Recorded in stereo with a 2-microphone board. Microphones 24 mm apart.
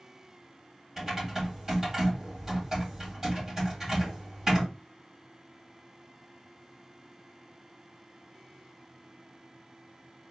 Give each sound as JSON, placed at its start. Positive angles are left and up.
{"t": 1.0, "sound": "typing on a keyboard", "side_deg": -10, "distance_m": 2.5}